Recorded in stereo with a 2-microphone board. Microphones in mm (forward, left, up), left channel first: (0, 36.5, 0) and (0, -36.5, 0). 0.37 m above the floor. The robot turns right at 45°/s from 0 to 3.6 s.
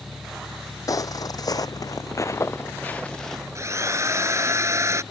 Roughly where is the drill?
Right.